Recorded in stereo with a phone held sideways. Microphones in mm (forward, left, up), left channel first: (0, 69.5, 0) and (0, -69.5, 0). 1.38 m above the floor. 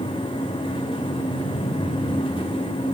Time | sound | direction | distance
0.0 | a fan | 40° left (ahead or behind) | 3 m